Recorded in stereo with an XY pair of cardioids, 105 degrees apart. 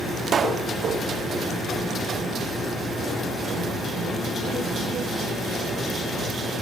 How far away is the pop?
About 0.7 m.